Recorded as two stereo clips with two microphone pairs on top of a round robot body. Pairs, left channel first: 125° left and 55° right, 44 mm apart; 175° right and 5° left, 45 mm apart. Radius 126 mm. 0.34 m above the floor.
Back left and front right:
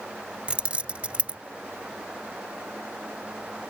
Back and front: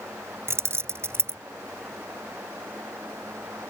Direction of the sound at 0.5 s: 5° left.